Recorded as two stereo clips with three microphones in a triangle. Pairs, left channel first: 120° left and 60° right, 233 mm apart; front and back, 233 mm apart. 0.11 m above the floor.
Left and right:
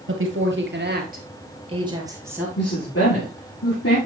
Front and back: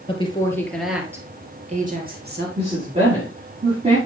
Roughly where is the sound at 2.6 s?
Behind left.